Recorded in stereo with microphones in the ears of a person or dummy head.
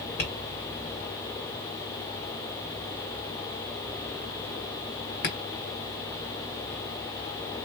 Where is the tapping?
50° left (ahead or behind), 1.6 m.